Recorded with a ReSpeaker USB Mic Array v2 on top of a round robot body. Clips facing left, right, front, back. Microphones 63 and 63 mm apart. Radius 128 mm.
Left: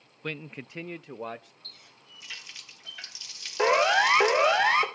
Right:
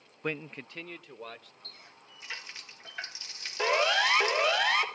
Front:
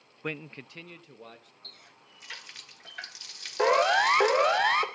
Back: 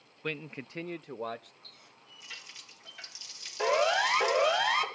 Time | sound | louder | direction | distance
0.2 | a man speaking | right 1 dB, front 1 dB | 50° right | 0.5 m
1.6 | a running tap | right 1 dB, front 2 dB | 35° right | 1.4 m
3.6 | a siren | left 5 dB, front 4 dB | 30° left | 2.5 m